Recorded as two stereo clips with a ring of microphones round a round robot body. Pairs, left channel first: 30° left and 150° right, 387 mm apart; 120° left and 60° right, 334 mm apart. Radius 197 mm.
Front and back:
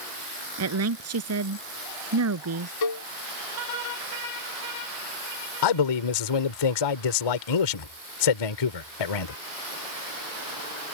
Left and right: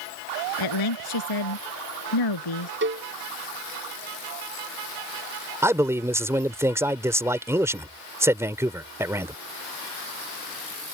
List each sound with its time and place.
0.6 s a woman speaking: 155° left
2.8 s a cowbell: 5° right
5.6 s a man speaking: 20° left